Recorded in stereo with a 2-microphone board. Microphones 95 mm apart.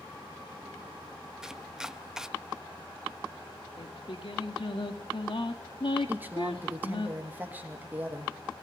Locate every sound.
1.4 s chopping: 5° right (ahead or behind), 0.5 m
3.8 s singing: 65° left (ahead or behind), 2 m
6.1 s a woman speaking: 20° right (ahead or behind), 2.5 m